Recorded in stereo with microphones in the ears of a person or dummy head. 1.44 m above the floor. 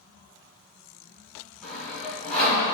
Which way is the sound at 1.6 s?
5° left (ahead or behind).